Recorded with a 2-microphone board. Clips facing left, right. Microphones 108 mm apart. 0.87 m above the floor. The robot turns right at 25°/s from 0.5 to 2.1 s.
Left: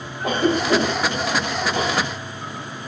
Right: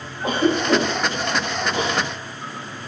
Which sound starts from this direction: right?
A cough, at 0.2 s.